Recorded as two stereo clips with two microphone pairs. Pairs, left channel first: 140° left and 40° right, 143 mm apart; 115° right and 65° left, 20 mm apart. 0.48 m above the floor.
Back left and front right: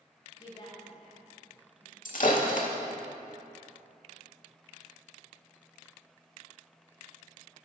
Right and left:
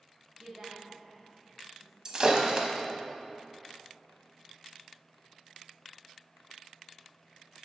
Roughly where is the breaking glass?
Behind left.